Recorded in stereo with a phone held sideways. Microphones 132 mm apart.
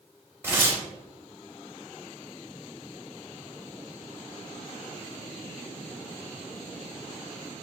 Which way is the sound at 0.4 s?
15° right (ahead or behind).